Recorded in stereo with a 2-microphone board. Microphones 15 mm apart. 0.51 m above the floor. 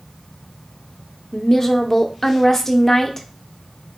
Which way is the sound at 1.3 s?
20° left (ahead or behind).